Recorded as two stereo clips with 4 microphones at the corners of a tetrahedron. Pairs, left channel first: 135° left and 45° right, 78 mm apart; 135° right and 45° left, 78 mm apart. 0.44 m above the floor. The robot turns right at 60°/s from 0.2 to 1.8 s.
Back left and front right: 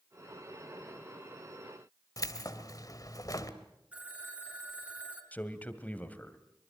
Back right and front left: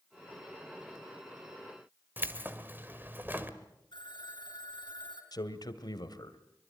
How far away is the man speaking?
About 2.0 m.